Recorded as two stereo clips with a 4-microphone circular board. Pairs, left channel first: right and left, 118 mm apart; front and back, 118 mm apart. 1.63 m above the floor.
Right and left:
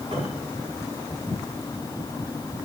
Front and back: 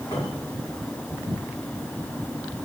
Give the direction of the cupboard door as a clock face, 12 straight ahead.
10 o'clock.